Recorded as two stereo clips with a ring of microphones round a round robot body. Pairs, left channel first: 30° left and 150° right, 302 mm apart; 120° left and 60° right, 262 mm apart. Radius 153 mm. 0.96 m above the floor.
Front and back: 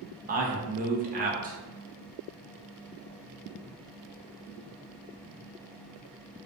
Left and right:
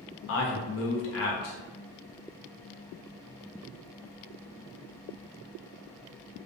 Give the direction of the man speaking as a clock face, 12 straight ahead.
7 o'clock.